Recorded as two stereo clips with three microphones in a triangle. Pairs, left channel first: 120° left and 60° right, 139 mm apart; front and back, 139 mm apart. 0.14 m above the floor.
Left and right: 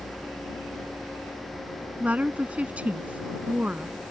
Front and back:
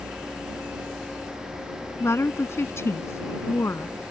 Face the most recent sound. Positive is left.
turn(degrees=0)